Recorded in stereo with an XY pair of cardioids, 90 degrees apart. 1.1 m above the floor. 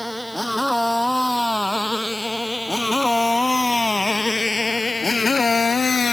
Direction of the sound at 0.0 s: Straight ahead.